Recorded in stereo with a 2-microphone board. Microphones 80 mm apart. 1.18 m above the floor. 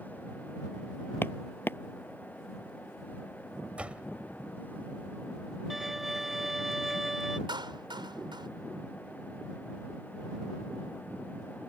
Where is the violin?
5° right (ahead or behind).